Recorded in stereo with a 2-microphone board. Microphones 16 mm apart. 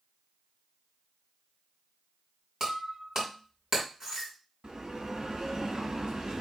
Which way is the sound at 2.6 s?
25° right (ahead or behind).